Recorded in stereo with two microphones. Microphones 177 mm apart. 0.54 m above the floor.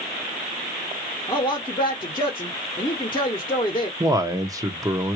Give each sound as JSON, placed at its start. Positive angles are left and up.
{"t": 1.3, "sound": "a man speaking", "side_deg": 25, "distance_m": 0.9}
{"t": 4.0, "sound": "a man speaking", "side_deg": -20, "distance_m": 0.7}